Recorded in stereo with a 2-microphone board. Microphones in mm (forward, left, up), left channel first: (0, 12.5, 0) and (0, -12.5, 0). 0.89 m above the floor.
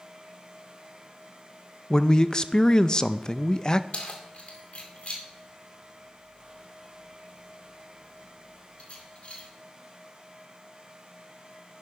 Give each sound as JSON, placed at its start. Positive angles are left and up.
{"t": 1.9, "sound": "a man speaking", "side_deg": 25, "distance_m": 0.5}
{"t": 3.9, "sound": "keys jangling", "side_deg": 50, "distance_m": 2.0}